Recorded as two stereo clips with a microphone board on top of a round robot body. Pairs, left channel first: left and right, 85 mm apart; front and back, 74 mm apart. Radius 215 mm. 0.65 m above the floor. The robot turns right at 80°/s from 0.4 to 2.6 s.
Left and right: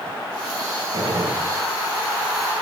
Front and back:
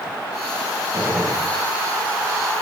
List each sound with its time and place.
0.9 s a gunshot: 130° right, 5 m; by 1.4 s 95° right, 5 m